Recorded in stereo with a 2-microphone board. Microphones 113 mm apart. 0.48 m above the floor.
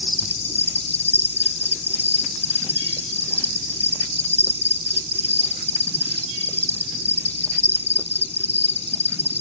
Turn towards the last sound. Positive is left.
turn(degrees=80)